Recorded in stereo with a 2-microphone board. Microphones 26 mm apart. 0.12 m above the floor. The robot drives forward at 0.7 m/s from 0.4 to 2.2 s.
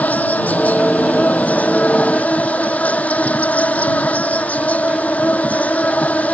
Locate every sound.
0.0 s an insect: 70° left (ahead or behind); by 6.3 s 60° left (ahead or behind)